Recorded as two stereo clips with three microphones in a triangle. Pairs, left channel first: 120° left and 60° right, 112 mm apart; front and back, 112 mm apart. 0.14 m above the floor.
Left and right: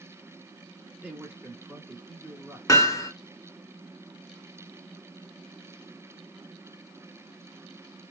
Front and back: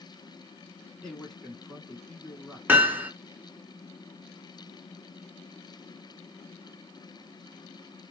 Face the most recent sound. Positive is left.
turn(degrees=125)